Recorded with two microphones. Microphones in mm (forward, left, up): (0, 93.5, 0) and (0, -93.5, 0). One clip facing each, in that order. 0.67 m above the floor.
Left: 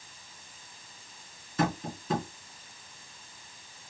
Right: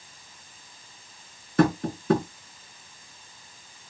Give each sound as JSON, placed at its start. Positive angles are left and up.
{"t": 1.6, "sound": "tapping", "side_deg": -70, "distance_m": 2.0}